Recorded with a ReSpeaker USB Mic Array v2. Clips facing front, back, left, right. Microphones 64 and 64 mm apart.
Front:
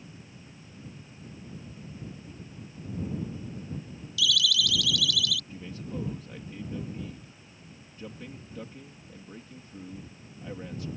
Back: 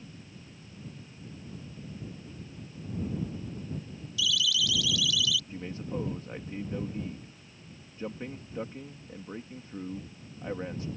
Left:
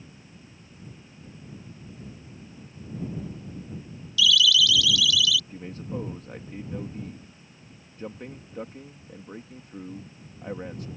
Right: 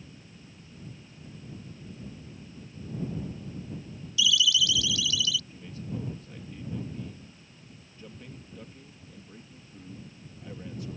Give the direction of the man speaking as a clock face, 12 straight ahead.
8 o'clock.